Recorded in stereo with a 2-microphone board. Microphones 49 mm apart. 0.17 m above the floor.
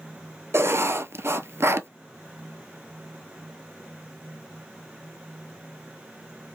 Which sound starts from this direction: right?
Writing, at 0.5 s.